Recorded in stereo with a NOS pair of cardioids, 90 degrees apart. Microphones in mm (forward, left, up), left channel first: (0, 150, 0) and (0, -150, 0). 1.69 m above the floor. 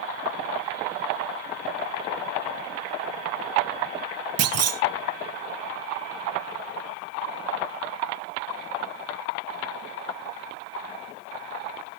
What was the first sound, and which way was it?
A clunk, 55° right.